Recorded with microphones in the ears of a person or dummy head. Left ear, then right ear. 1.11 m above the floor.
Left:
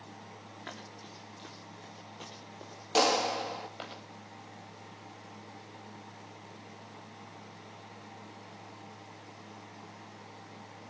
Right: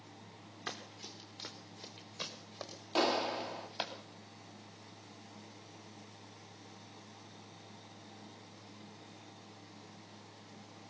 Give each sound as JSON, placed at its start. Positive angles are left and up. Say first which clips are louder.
{"t": 0.7, "sound": "running footsteps", "louder": "right 3 dB", "side_deg": -20, "distance_m": 5.0}
{"t": 3.0, "sound": "a clap", "louder": "left 5 dB", "side_deg": 80, "distance_m": 1.9}